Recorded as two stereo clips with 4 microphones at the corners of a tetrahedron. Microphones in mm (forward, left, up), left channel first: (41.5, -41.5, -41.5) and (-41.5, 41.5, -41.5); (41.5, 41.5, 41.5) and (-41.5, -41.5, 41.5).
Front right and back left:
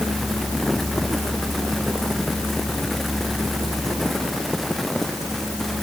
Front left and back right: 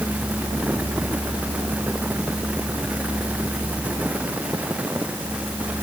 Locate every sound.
Only background noise.